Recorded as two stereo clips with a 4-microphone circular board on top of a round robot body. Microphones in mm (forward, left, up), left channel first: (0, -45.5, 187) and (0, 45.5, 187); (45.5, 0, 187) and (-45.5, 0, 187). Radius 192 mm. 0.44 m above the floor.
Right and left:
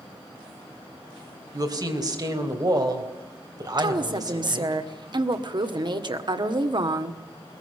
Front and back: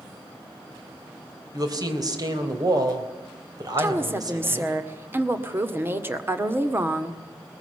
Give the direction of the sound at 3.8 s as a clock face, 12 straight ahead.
8 o'clock.